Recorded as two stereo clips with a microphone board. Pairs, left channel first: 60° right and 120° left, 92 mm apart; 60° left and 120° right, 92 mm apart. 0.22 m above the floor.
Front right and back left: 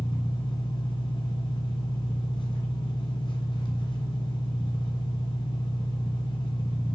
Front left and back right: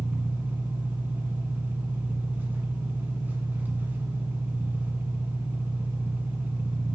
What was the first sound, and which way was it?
An engine running, 55° right.